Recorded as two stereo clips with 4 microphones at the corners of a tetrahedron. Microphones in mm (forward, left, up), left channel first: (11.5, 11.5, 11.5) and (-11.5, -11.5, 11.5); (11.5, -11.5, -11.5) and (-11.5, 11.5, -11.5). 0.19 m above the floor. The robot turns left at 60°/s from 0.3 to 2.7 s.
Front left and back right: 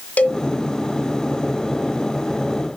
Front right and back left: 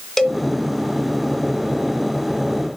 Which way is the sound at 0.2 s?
35° left.